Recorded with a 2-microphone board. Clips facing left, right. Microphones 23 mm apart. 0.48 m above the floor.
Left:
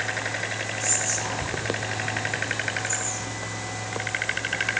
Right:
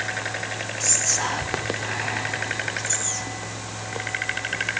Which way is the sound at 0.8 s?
45° right (ahead or behind).